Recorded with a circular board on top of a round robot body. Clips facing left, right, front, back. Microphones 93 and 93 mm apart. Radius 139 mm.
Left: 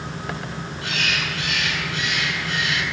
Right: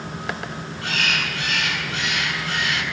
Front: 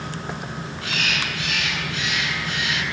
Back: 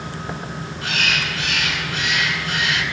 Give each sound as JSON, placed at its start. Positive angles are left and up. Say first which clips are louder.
{"t": 0.8, "sound": "a bird", "louder": "right 2 dB, back 4 dB", "azimuth_deg": -130, "distance_m": 8.5}